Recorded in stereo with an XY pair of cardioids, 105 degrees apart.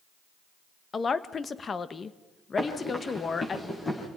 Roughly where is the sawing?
No sawing in this recording.